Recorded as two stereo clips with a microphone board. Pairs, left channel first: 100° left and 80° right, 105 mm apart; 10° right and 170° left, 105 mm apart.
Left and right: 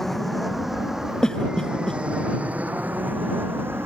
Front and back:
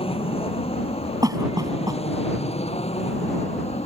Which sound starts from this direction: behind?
A cough, at 1.2 s.